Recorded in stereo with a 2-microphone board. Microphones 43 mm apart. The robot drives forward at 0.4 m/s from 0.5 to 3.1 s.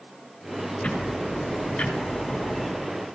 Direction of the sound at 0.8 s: 20° left (ahead or behind).